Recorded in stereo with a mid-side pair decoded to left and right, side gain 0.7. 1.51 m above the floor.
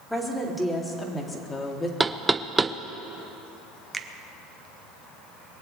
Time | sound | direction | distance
0.1 | a woman speaking | 5° left | 3 m
2.0 | knocking | 10° right | 0.6 m
3.9 | a finger snap | 15° right | 1.1 m